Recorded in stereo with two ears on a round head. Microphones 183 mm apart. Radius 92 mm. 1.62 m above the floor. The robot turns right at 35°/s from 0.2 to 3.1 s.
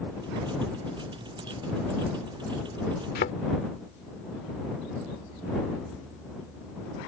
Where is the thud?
50° left (ahead or behind).